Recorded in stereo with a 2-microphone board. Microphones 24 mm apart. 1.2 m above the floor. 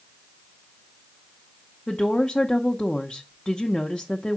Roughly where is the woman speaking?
Left.